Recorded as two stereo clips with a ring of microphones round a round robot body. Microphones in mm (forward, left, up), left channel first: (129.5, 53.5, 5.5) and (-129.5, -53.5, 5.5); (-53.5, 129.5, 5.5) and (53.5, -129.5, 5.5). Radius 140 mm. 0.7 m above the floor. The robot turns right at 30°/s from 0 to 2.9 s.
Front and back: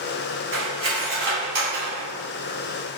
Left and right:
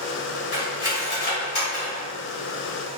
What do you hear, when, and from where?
0.5 s cutlery clinking: 150° left, 2.0 m; by 2.1 s 165° right, 2.0 m